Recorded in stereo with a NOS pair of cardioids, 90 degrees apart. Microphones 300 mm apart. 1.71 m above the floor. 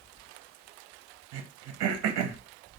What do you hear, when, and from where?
1.3 s throat clearing: 60° right, 0.6 m